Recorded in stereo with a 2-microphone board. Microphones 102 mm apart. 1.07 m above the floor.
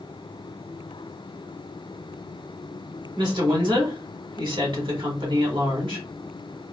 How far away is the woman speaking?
About 1.5 m.